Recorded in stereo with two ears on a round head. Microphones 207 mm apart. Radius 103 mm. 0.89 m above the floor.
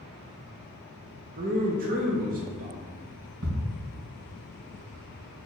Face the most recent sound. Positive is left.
turn(degrees=-70)  # may be behind; listen again after turning